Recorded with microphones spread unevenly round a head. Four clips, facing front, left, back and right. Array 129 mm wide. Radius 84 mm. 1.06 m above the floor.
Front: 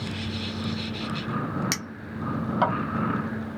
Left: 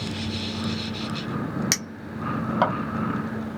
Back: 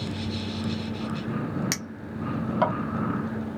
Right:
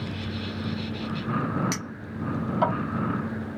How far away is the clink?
About 1.2 m.